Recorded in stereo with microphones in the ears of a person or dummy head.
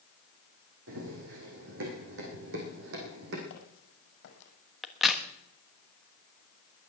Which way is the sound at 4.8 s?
5° right (ahead or behind).